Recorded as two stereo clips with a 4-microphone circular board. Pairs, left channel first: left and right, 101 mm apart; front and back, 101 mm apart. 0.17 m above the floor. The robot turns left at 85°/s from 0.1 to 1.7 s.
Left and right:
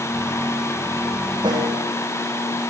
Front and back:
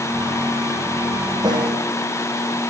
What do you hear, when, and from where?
1.4 s a snare drum: 130° right, 3 m; by 1.9 s 155° right, 3 m